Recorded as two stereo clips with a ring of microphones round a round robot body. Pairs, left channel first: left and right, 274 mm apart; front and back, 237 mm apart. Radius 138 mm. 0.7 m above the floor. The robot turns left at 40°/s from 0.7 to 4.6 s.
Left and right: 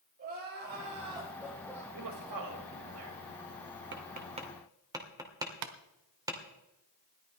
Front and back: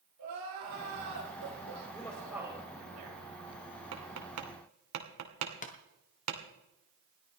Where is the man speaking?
80° right, 4.5 m; by 3.2 s 130° right, 4.5 m.